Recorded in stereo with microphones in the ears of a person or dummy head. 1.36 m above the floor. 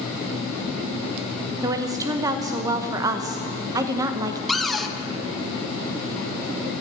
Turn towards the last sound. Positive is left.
turn(degrees=5)  # may be behind; listen again after turning